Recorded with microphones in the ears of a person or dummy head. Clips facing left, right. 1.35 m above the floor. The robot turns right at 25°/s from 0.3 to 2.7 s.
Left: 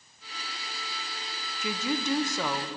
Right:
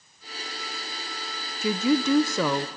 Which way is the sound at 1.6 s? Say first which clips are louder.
Right 8 dB; 80° right.